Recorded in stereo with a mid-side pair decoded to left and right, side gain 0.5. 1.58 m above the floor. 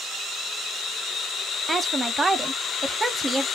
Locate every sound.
1.7 s a woman speaking: 20° right, 0.9 m